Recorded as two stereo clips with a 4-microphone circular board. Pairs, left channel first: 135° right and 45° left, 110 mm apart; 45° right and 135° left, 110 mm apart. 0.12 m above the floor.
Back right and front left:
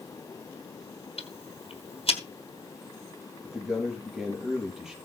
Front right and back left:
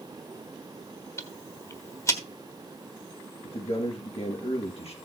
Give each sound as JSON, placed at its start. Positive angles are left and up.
{"t": 1.2, "sound": "ticking", "azimuth_deg": -105, "distance_m": 1.3}
{"t": 3.4, "sound": "a man speaking", "azimuth_deg": -40, "distance_m": 4.0}